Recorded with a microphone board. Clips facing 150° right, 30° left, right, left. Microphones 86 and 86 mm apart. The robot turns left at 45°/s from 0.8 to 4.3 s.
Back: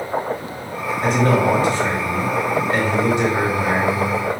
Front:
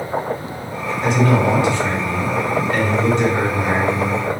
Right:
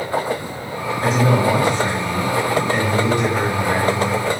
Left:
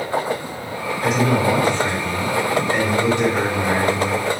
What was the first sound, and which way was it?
A man speaking, 125° right.